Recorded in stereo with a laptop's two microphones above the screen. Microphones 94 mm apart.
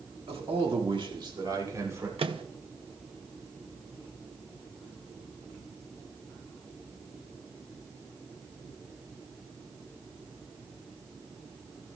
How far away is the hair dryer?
I don't hear a hair dryer.